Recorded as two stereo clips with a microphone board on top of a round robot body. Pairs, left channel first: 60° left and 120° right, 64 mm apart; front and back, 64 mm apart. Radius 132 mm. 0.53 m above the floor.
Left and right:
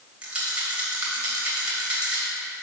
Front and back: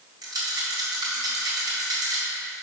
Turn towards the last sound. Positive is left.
turn(degrees=165)